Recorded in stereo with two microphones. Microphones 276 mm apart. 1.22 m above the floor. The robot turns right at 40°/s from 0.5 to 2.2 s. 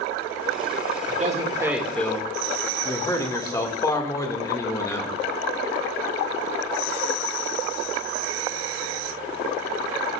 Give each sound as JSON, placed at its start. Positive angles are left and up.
{"t": 1.1, "sound": "a man speaking", "azimuth_deg": -30, "distance_m": 1.9}